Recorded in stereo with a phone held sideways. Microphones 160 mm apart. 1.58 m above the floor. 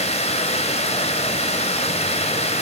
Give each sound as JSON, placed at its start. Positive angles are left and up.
{"t": 0.0, "sound": "running water", "side_deg": 45, "distance_m": 2.5}